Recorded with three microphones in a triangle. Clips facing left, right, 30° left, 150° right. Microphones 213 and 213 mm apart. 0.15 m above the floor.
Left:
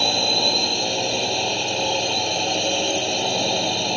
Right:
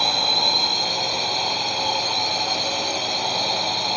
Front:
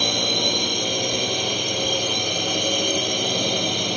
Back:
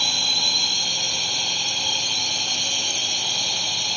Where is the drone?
30° left.